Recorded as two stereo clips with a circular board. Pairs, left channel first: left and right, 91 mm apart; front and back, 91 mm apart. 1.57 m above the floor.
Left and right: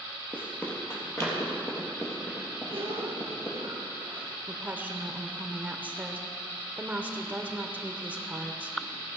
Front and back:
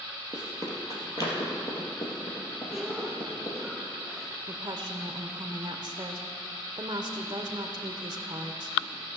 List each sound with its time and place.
0.3 s running footsteps: 25° left, 2 m; by 3.6 s 40° left, 4.5 m
2.7 s a cough: 100° right, 1.7 m
4.5 s a woman speaking: 155° right, 0.6 m